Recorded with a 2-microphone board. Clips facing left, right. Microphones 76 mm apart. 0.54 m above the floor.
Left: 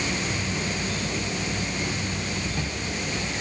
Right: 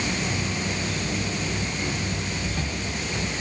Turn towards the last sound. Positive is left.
No sound to turn to.